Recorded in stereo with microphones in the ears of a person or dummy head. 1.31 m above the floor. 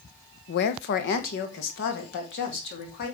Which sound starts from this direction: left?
A woman speaking, at 0.5 s.